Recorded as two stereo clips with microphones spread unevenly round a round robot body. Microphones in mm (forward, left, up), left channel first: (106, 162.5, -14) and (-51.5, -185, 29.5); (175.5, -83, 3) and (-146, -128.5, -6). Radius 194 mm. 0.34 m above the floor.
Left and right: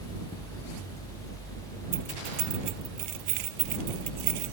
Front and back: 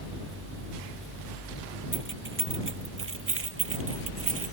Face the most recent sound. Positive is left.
turn(degrees=-125)